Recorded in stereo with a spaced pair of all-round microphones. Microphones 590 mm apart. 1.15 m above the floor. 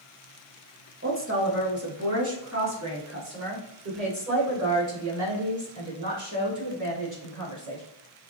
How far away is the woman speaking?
About 1.0 m.